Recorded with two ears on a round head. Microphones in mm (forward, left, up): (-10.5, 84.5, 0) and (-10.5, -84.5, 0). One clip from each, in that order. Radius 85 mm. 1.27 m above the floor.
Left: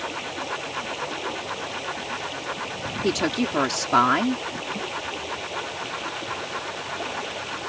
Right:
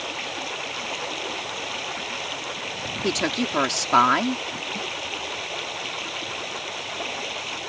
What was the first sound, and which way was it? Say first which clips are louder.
Running water: right 1 dB; 40° right (ahead or behind).